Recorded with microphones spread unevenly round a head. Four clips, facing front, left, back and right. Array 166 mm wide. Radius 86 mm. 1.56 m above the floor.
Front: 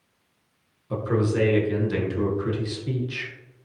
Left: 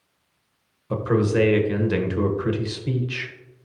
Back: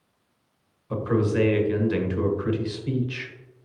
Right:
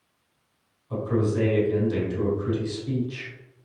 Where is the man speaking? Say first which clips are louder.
Left 4 dB, back 1 dB; 85° left, 1.4 m.